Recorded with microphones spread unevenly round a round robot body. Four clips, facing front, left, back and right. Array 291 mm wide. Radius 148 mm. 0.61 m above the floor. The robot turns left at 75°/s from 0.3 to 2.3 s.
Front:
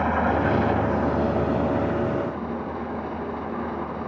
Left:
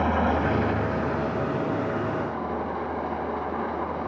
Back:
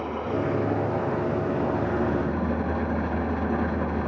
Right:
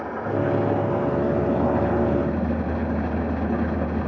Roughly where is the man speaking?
No man speaking in this recording.